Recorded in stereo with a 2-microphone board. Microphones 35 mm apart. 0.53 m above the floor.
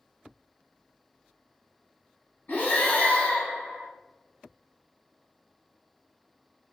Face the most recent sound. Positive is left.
turn(degrees=65)  # may be behind; listen again after turning